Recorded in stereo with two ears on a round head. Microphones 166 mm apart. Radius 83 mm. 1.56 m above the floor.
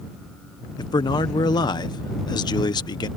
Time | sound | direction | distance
0.8 | a man speaking | 25° left (ahead or behind) | ?